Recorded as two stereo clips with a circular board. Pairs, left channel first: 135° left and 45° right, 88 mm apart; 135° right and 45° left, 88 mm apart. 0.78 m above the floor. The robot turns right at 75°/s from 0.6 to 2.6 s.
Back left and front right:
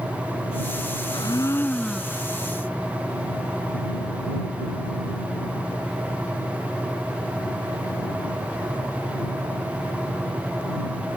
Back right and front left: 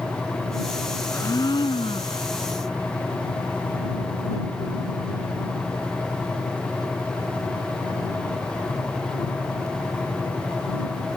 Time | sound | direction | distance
1.1 | a blender | 160° left | ?